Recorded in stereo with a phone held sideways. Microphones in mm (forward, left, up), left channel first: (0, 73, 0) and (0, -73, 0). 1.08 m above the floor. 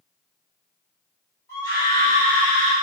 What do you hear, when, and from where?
1.5 s a scream: 20° left (ahead or behind), 1.8 m; by 2.7 s 40° left (ahead or behind), 1.4 m